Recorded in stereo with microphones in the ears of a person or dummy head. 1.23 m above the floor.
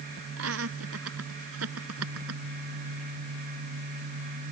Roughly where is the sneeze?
No sneeze in this recording.